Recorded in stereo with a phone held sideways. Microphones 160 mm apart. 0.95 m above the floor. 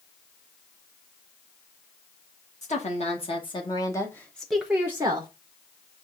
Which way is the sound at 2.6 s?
45° left (ahead or behind).